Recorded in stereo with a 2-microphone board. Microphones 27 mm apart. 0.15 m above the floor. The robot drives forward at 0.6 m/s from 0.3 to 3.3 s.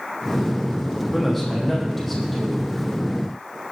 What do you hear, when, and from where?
1.1 s a man speaking: 5° left (ahead or behind), 7 m